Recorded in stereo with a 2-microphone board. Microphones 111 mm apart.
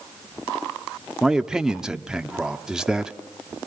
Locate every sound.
1.2 s a man speaking: 5° right (ahead or behind), 1.1 m